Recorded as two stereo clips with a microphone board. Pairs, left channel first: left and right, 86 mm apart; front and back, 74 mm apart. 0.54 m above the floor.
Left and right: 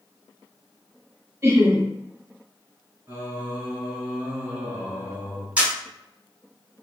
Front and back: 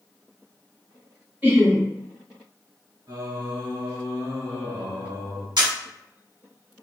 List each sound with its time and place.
1.4 s laughter: 125° right, 1.4 m
3.1 s singing: 150° right, 2 m
5.6 s a camera shutter: 165° right, 2.5 m